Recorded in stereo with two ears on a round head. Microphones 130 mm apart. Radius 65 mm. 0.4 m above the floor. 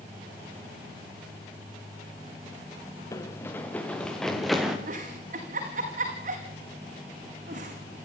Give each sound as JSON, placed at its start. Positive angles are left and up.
{"t": 3.1, "sound": "running footsteps", "side_deg": 20, "distance_m": 3.0}
{"t": 4.9, "sound": "a giggle", "side_deg": -60, "distance_m": 6.0}